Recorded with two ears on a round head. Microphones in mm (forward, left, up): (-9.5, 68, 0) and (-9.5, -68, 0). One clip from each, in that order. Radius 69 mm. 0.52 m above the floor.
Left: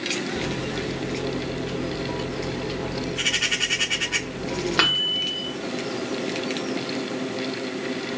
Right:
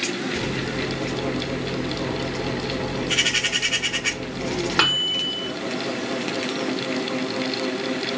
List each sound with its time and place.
0.3 s a microwave: 5° left (ahead or behind), 1.2 m